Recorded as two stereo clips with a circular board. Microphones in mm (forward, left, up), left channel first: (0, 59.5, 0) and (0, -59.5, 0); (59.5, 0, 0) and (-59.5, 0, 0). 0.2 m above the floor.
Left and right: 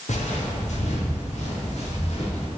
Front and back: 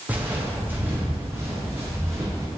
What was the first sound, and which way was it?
Footsteps, 105° left.